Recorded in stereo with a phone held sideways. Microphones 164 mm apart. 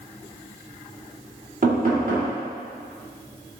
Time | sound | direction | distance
1.6 | knocking | 55° right (ahead or behind) | 1.6 m